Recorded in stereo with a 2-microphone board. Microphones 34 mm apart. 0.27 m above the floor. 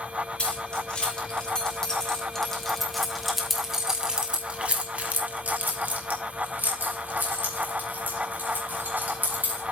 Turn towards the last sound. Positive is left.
turn(degrees=-70)  # may be behind; listen again after turning